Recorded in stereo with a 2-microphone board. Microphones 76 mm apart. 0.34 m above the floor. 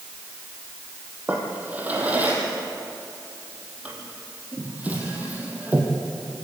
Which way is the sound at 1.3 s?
20° right (ahead or behind).